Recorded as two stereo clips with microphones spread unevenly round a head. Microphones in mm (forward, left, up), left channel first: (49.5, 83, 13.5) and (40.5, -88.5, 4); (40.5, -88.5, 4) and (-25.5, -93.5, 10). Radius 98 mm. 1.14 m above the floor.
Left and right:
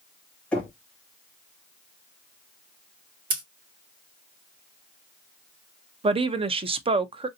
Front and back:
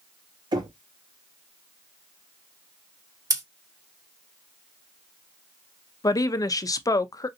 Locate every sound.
0.5 s knocking: 175° left, 0.9 m
3.3 s scissors: 145° right, 1.8 m
6.0 s a woman speaking: 35° right, 0.6 m